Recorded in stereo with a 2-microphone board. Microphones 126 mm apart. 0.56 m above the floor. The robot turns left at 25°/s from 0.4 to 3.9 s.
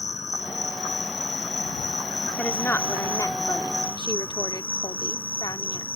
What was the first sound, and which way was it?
An insect, 110° left.